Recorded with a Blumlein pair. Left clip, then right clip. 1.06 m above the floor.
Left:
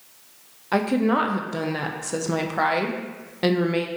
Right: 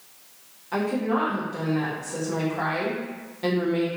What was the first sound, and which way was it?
A woman speaking, 60° left.